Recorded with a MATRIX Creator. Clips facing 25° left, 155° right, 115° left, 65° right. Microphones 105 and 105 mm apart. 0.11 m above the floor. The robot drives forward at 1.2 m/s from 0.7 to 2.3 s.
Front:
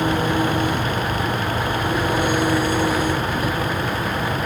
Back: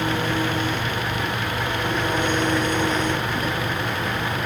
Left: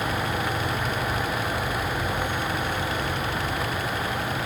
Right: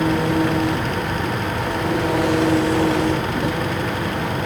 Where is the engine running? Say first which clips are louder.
Front 4 dB, right 9 dB; 55° right; by 4.5 s 60° right.